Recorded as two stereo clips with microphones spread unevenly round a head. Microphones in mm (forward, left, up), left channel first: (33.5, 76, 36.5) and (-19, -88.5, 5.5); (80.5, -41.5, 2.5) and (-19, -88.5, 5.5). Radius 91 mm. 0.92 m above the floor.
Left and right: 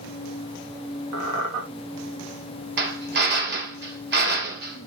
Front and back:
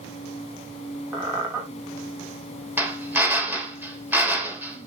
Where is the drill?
80° right, 3.5 m.